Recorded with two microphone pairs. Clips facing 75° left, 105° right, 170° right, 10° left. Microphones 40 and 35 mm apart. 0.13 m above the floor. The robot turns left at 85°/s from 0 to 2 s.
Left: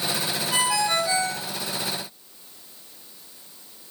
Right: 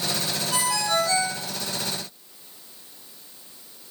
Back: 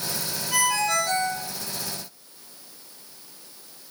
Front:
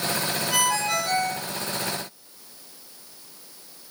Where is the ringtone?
90° left, 0.9 m; by 1.4 s 10° left, 0.9 m.